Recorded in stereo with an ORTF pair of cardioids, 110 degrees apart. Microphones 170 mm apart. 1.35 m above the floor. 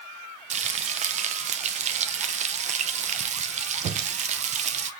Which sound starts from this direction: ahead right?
Frying, at 0.5 s.